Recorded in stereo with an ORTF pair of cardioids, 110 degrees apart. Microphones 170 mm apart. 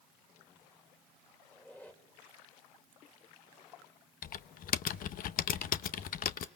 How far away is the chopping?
No chopping in this recording.